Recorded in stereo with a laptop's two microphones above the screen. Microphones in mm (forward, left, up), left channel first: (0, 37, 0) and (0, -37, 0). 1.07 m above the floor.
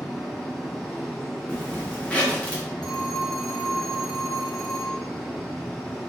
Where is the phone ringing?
5° left (ahead or behind), 1.3 m.